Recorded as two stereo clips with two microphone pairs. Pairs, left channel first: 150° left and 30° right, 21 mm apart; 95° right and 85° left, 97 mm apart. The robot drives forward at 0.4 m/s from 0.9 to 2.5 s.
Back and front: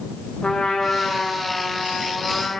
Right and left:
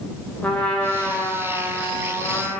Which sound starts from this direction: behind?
A trumpet, at 0.4 s.